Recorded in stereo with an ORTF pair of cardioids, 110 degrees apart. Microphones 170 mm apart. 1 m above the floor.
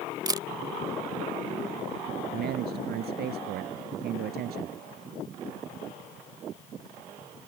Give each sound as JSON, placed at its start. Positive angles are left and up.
{"t": 0.3, "sound": "a camera shutter", "azimuth_deg": -25}
{"t": 2.3, "sound": "a man speaking", "azimuth_deg": -70}